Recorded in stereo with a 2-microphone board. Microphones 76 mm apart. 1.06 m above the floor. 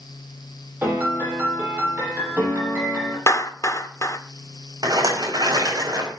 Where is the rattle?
55° right (ahead or behind), 5.5 m.